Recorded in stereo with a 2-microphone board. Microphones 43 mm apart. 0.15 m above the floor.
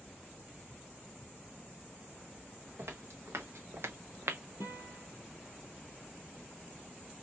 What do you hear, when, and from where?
2.8 s footsteps: 75° right (ahead or behind), 1.9 m; by 4.4 s 70° right (ahead or behind), 0.7 m
4.6 s a guitar: 60° right (ahead or behind), 1.8 m